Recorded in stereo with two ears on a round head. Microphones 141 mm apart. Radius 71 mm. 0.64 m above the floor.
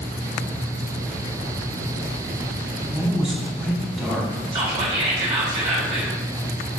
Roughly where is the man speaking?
Centre.